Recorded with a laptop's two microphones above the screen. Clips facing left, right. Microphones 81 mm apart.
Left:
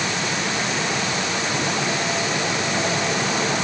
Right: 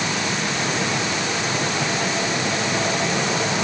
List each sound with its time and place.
Only background noise.